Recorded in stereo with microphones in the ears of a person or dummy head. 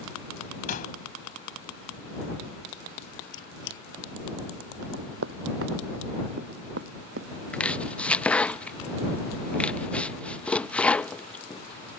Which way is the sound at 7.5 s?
10° left (ahead or behind).